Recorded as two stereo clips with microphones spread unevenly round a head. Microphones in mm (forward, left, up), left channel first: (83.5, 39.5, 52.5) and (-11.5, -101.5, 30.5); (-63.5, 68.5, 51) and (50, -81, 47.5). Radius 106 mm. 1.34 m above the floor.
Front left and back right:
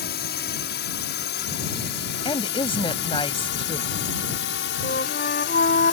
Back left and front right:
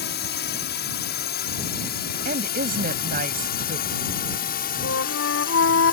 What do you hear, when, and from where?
0.0 s a drone: 95° left; by 5.9 s 80° left
2.2 s a woman speaking: 5° right
4.8 s a flute: 105° left